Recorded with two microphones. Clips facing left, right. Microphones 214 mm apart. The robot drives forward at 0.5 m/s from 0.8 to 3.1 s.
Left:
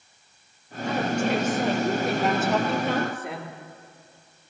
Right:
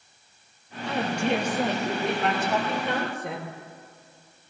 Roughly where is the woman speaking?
Centre.